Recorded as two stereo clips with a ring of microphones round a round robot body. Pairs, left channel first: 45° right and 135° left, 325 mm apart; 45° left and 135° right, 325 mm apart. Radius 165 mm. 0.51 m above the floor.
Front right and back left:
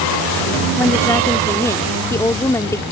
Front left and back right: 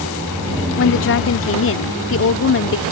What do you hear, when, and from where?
0.8 s a woman speaking: 30° left